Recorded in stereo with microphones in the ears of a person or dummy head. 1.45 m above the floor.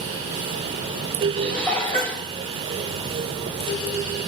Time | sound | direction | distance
1.4 | dishes clattering | 15° left (ahead or behind) | 4.5 m